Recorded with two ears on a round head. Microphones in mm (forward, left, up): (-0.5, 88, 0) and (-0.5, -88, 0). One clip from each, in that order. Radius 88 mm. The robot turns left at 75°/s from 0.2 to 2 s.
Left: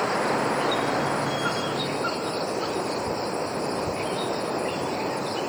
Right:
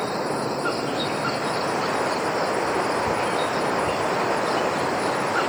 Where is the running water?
90° left; by 5.5 s 45° right.